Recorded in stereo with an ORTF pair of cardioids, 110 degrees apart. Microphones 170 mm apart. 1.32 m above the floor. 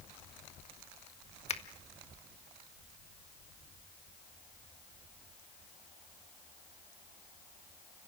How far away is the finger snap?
About 1.7 m.